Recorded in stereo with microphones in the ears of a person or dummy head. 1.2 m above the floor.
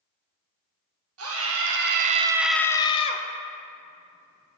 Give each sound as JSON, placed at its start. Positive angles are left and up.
{"t": 1.2, "sound": "a scream", "side_deg": -75, "distance_m": 1.1}